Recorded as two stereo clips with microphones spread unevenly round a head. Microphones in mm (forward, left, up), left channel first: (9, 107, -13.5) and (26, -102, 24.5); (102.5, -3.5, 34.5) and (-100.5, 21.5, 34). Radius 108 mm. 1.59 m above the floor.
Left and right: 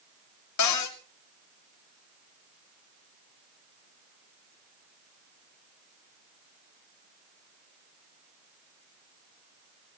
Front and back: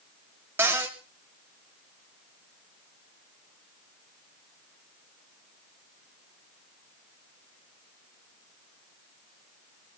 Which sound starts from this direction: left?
A cupboard door, at 0.6 s.